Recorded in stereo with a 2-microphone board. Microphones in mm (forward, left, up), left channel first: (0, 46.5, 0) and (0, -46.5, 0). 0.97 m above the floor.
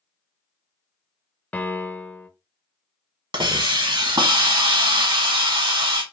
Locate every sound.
1.5 s a piano: 20° left (ahead or behind), 0.5 m
3.3 s a hiss: 55° right (ahead or behind), 1.0 m